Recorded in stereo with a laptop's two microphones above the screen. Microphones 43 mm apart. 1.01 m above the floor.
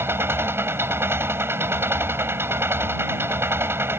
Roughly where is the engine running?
Right.